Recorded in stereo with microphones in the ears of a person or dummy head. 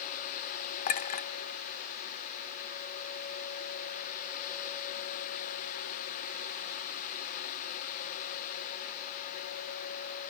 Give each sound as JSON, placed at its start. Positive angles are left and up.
{"t": 0.9, "sound": "a clink", "side_deg": 40, "distance_m": 0.5}